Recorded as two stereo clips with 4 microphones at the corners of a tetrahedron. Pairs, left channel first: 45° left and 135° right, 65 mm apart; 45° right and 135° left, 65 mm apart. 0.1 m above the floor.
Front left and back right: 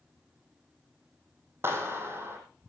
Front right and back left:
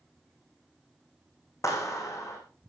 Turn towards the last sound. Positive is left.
turn(degrees=-85)